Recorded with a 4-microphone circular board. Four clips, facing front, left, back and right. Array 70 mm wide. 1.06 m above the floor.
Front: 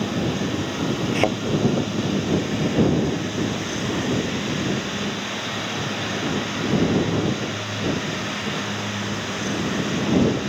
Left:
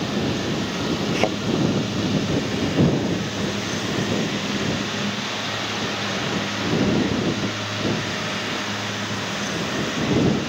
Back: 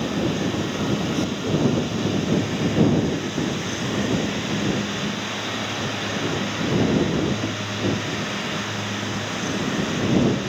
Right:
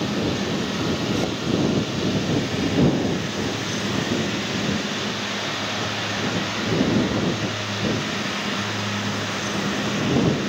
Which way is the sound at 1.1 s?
35° left.